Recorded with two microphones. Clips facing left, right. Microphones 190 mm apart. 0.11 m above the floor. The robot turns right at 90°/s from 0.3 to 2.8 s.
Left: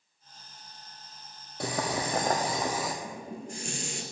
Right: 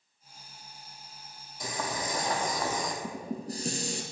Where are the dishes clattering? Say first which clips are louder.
Right 3 dB; 35° right (ahead or behind), 1.5 m.